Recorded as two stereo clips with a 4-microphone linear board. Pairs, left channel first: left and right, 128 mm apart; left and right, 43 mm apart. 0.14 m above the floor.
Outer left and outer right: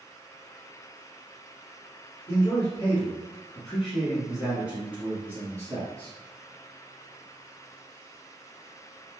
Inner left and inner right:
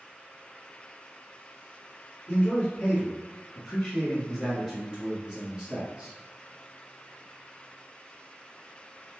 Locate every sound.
2.3 s a man speaking: 20° left (ahead or behind), 1.3 m; by 6.1 s 25° right (ahead or behind), 1.5 m